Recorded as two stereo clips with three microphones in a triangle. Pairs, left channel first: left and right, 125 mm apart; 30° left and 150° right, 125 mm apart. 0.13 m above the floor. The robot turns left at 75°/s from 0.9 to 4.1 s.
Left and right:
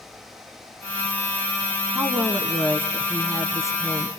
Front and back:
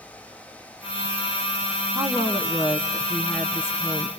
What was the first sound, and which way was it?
A woman speaking, 150° right.